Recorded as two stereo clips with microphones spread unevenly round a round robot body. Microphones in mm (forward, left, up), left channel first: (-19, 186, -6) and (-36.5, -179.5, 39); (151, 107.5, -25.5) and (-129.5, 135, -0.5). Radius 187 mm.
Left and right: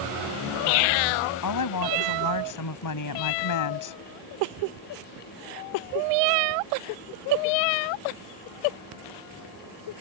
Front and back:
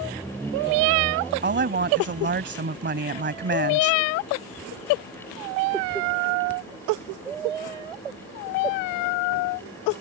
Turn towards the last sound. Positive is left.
turn(degrees=120)